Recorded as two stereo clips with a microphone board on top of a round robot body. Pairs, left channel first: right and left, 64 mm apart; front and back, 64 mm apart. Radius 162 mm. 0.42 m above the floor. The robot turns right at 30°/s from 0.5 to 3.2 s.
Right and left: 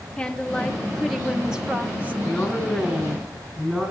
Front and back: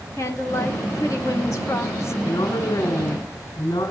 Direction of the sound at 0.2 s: 15° right.